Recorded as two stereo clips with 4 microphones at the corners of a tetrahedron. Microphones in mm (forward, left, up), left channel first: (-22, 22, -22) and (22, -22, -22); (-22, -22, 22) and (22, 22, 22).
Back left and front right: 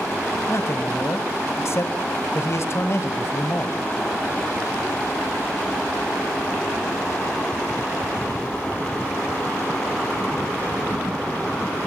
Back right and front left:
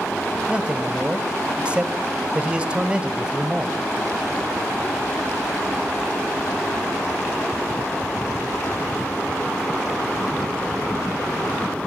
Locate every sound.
0.5 s a man speaking: 110° left, 1.3 m